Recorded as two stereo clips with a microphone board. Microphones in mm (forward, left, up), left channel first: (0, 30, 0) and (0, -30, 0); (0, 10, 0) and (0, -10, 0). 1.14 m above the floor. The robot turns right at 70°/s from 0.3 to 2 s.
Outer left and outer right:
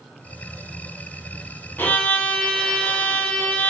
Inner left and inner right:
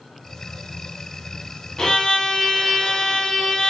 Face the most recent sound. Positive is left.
turn(degrees=25)  # may be behind; listen again after turning